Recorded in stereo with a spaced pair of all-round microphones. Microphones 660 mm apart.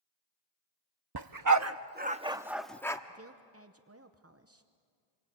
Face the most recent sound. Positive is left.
turn(degrees=-20)  # may be behind; listen again after turning